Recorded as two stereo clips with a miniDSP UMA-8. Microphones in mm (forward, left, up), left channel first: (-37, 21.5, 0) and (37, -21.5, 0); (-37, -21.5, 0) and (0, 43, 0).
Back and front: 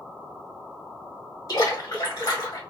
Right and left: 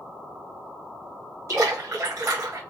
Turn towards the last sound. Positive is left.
turn(degrees=105)